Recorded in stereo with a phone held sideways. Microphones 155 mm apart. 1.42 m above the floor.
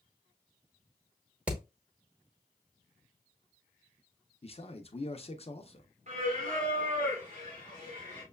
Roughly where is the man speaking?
Left.